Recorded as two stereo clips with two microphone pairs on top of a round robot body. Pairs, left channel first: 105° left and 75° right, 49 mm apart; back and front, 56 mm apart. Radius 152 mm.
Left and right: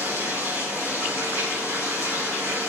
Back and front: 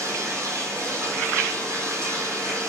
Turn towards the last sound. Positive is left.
turn(degrees=-30)